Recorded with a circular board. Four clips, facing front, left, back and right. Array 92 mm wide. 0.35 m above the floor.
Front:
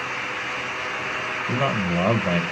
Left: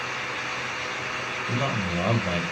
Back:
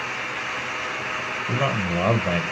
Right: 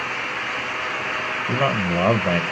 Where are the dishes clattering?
I don't hear dishes clattering.